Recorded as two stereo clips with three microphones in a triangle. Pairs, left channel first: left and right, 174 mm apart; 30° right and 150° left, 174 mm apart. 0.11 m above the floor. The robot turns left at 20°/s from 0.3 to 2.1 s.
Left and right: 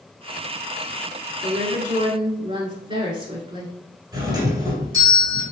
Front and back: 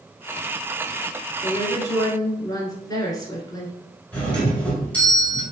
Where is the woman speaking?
60° right, 1.2 m; by 3.7 s 75° right, 1.2 m.